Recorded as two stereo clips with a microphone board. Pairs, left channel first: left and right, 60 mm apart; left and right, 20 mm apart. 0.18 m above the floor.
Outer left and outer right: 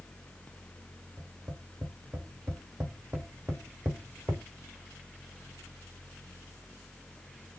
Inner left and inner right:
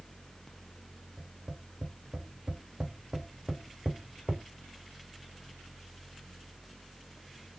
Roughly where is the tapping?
Right.